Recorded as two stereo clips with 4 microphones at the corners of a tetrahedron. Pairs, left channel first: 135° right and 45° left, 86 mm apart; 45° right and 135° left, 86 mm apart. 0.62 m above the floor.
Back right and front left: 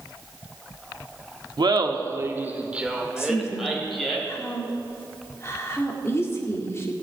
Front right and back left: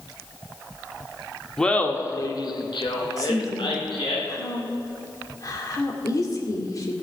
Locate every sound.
1.6 s laughter: 40° left, 1.1 m; by 4.2 s 50° right, 3.5 m
3.2 s a woman speaking: 80° right, 1.7 m